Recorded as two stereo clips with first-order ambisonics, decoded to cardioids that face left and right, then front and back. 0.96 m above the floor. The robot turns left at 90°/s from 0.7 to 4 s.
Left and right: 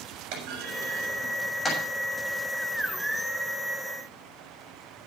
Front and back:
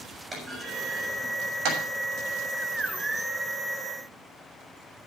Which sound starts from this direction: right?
A clunk, at 0.3 s.